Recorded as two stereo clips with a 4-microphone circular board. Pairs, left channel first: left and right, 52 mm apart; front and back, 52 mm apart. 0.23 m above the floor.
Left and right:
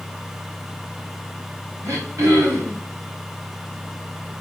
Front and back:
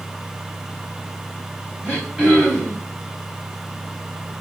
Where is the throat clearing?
110° right, 3 m.